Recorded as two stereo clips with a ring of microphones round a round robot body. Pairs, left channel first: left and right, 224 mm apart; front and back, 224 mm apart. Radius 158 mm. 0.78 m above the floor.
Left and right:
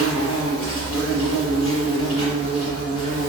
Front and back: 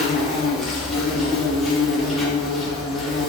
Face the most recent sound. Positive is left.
turn(degrees=90)